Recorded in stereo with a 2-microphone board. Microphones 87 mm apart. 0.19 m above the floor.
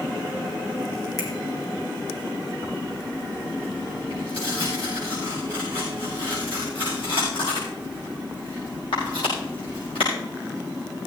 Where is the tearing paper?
85° left, 8 m.